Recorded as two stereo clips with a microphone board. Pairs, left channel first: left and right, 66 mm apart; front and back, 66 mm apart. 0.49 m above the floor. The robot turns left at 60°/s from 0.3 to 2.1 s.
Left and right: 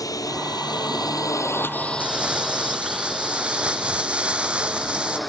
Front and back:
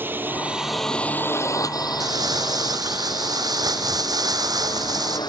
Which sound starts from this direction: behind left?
A drone, at 0.0 s.